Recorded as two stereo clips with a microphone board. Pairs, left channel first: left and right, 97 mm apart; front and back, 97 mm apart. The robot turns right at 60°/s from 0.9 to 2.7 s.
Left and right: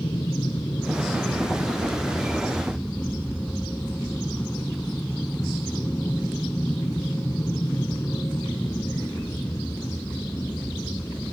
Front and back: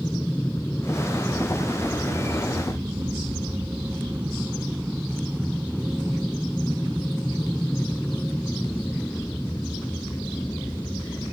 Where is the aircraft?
65° left; by 11.3 s 40° left.